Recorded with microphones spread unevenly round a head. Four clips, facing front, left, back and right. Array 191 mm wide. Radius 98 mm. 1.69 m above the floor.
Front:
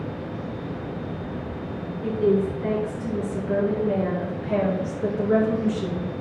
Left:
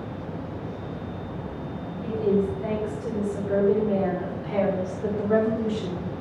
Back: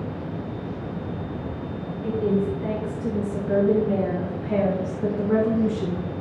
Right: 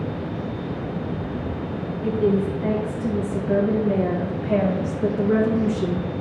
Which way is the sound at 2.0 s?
110° right.